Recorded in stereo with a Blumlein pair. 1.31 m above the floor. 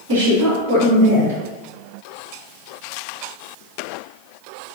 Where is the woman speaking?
60° right, 1.0 m.